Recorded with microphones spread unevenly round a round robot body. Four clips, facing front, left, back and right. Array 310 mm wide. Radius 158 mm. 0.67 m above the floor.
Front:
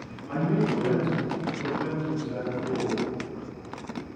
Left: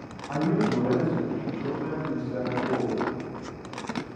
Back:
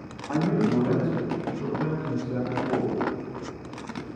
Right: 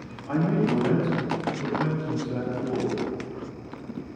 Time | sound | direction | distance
0.3 | a man speaking | 115° right | 4 m